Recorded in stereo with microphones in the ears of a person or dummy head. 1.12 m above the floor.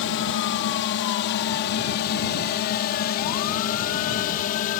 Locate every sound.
0.0 s a drone: 60° left (ahead or behind); by 4.8 s 45° left (ahead or behind)